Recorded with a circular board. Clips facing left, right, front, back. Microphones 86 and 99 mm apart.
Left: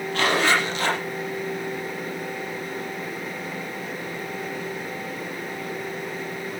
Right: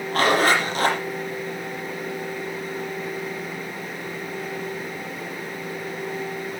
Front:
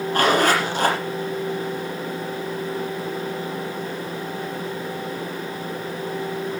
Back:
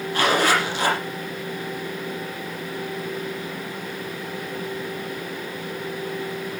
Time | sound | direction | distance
0.1 | a zipper | 40° right | 6 m